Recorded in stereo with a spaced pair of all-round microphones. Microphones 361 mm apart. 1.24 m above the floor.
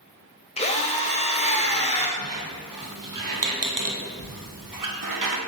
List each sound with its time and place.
0.6 s a drill: 20° left (ahead or behind), 0.5 m
2.2 s a squeak: 60° right (ahead or behind), 0.6 m